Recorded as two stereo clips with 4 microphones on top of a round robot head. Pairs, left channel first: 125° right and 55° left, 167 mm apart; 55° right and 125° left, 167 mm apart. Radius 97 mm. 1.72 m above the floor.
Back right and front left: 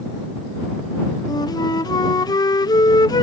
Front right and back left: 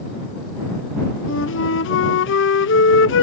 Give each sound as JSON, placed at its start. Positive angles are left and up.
{"t": 1.3, "sound": "a flute", "azimuth_deg": -60}